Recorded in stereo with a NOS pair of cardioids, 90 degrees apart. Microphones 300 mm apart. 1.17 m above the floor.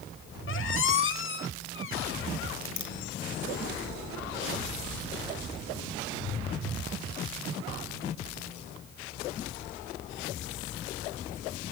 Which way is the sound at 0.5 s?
40° left.